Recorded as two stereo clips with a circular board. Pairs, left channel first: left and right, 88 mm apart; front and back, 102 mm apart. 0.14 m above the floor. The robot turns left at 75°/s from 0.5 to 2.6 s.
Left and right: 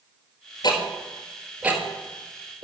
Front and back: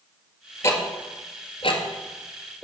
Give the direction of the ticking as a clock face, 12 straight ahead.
10 o'clock.